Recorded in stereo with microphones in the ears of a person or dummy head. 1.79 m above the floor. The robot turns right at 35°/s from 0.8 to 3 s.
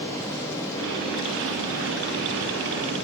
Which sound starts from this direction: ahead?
Running water, at 0.0 s.